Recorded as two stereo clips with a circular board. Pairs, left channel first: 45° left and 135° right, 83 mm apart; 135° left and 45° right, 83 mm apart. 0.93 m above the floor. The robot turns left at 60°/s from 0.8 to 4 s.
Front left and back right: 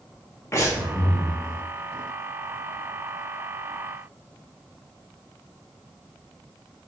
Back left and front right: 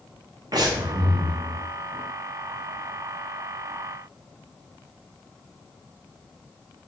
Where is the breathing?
10° right, 0.5 m; by 1.4 s 45° right, 0.5 m.